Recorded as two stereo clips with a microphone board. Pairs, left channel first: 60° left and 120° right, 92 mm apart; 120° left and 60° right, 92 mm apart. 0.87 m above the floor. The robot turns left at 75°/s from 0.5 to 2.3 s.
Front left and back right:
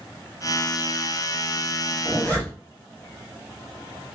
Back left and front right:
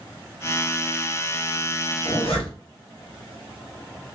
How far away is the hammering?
No hammering in this recording.